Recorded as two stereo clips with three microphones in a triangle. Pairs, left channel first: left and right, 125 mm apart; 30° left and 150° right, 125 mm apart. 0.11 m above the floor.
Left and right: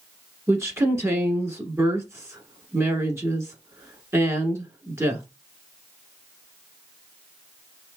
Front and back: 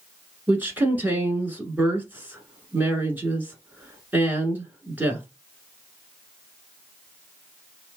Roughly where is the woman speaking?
Right.